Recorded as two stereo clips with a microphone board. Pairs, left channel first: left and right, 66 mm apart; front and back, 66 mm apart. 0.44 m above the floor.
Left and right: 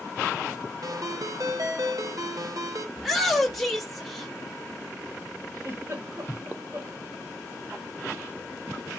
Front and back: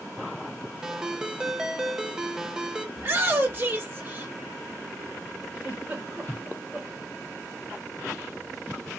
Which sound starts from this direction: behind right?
A giggle, at 5.5 s.